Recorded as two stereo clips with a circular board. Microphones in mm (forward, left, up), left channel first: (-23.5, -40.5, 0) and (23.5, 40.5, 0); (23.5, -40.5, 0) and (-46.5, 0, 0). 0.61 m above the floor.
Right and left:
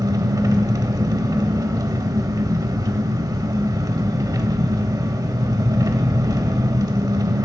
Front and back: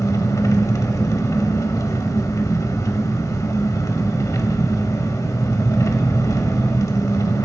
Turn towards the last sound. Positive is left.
turn(degrees=15)